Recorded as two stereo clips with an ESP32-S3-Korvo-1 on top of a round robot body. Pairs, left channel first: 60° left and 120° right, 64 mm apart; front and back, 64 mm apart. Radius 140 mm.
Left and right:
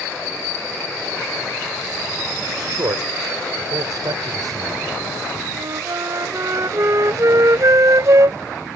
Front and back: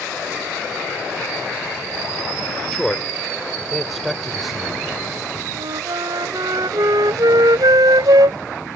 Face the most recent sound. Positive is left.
turn(degrees=-160)